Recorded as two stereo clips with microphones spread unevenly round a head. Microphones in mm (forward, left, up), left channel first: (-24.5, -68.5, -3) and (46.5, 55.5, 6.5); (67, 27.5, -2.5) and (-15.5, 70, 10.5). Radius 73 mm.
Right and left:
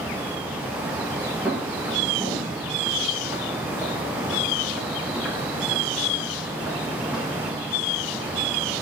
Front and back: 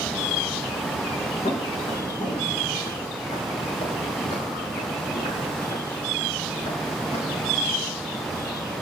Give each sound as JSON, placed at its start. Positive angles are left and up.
{"t": 1.4, "sound": "footsteps", "azimuth_deg": -20, "distance_m": 4.5}